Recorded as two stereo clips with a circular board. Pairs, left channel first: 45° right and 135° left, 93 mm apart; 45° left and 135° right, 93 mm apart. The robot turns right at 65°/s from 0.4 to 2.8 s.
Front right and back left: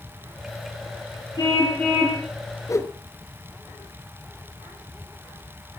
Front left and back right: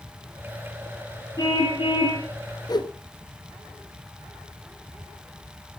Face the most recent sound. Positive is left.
turn(degrees=15)